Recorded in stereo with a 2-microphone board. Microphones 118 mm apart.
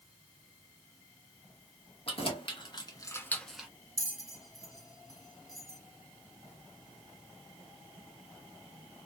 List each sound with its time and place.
2.1 s keys jangling: 50° left (ahead or behind), 1.1 m; by 3.7 s 10° right (ahead or behind), 0.5 m
4.0 s a bell: 30° right (ahead or behind), 0.9 m